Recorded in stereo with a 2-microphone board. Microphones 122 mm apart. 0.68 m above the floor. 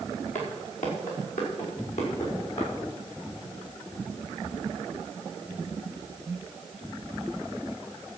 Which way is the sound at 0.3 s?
75° left (ahead or behind).